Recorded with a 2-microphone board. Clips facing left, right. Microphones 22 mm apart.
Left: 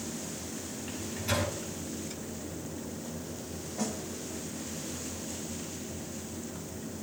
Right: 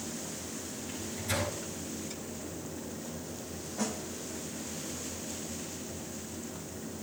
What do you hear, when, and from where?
0.9 s a microwave: 60° left (ahead or behind), 7.5 m
3.8 s a snare drum: centre (ahead or behind), 2.5 m